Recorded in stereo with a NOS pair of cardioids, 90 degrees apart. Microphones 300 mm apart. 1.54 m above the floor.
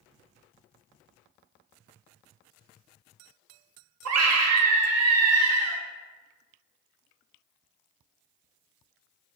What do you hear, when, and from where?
4.0 s a scream: 60° right, 0.7 m